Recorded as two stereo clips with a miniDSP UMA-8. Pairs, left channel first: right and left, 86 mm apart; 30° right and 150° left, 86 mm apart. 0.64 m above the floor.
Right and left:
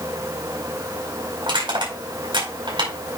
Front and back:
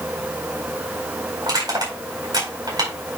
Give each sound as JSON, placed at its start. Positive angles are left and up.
{"t": 1.4, "sound": "crushing", "azimuth_deg": 110, "distance_m": 4.5}